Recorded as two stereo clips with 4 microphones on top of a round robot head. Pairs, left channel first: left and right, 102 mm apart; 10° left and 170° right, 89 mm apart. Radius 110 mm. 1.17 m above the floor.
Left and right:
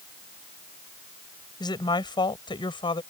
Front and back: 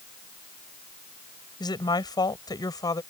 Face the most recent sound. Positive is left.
turn(degrees=55)